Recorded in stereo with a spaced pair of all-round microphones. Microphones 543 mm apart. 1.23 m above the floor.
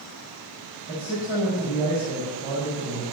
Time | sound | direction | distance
0.9 | a man speaking | 20° right (ahead or behind) | 6 m